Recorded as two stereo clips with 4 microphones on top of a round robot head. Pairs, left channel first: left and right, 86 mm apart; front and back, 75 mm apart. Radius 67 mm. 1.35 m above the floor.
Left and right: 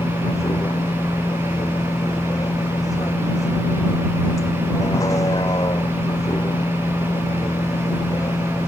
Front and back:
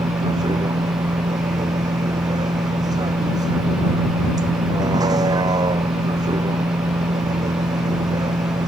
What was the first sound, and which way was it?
A vehicle, 150° left.